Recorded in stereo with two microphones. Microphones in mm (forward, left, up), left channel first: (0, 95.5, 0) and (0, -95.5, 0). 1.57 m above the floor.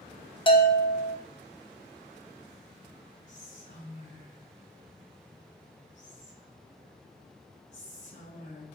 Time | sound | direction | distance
0.5 | a bell | 25° left (ahead or behind) | 0.9 m
3.3 | whispering | 40° left (ahead or behind) | 1.2 m